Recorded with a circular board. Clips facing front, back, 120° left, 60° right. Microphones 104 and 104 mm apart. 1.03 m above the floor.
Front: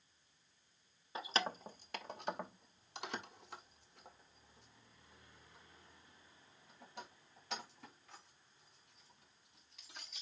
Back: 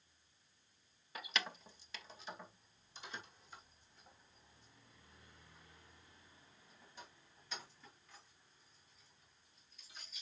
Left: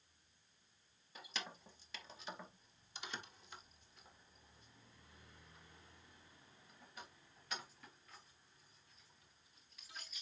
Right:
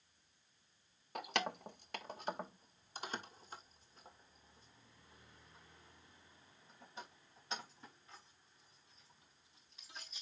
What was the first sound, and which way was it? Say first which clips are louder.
Keys jangling: front 5 dB, right 11 dB; 60° right.